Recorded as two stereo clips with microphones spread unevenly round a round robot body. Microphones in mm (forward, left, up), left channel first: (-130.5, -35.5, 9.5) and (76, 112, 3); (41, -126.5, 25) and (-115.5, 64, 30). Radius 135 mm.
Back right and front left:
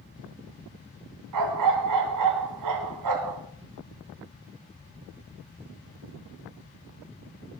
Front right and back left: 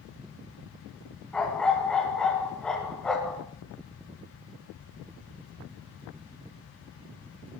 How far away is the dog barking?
About 2.5 m.